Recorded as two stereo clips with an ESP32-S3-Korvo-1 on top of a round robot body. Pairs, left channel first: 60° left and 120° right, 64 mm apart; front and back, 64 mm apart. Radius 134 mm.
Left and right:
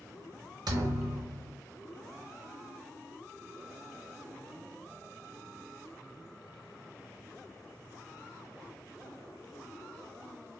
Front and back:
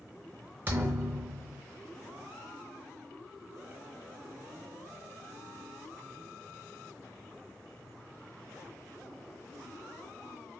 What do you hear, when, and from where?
0.7 s a thud: 125° right, 0.9 m